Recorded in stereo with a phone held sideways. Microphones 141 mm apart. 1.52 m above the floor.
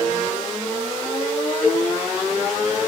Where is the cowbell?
20° left (ahead or behind), 2.0 m.